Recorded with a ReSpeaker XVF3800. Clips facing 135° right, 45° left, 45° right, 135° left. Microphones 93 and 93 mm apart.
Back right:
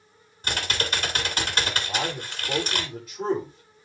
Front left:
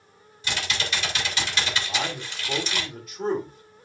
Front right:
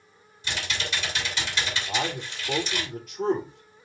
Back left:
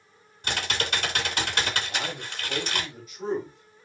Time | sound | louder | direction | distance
0.4 | typing on a keyboard | back right 1 dB, back left 3 dB | 175° left | 2 m
1.9 | a man speaking | back right 1 dB, front right 4 dB | 65° right | 7 m